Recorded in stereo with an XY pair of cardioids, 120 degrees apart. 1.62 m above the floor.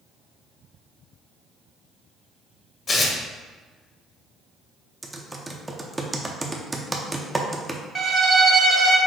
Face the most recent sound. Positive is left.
turn(degrees=-40)